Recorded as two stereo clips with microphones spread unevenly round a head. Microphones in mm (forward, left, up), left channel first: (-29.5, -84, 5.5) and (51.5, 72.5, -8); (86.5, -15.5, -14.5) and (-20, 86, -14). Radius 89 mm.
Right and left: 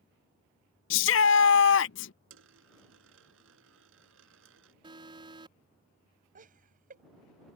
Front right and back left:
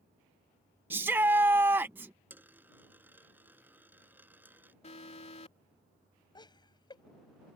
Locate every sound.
0.9 s a shout: 145° right
2.3 s a dropped coin: 60° left
4.8 s an alarm: straight ahead
6.3 s laughter: 15° left